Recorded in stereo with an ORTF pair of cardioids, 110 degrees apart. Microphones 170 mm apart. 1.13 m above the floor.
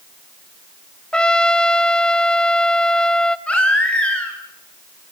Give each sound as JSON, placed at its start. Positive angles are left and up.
{"t": 1.1, "sound": "a trumpet", "azimuth_deg": 5, "distance_m": 1.3}
{"t": 3.5, "sound": "a baby crying", "azimuth_deg": 5, "distance_m": 8.5}